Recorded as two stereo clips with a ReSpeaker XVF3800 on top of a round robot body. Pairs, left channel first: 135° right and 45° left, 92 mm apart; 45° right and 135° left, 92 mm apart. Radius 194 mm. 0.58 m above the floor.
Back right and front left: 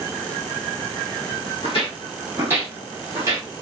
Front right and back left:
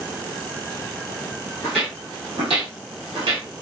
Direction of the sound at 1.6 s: 115° right.